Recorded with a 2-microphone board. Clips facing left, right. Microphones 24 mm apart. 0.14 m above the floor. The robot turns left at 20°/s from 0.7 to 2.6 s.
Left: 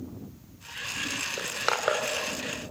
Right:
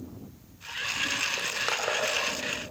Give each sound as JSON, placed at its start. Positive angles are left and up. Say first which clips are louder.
{"t": 1.4, "sound": "crushing", "louder": "even", "side_deg": 20, "distance_m": 2.0}